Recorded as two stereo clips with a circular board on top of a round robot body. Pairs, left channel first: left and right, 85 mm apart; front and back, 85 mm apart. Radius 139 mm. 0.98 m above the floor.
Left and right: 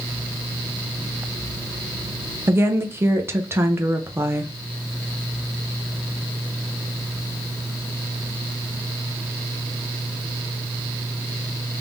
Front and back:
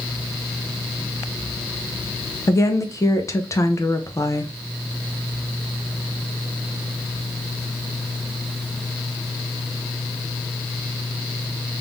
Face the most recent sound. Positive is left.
turn(degrees=-40)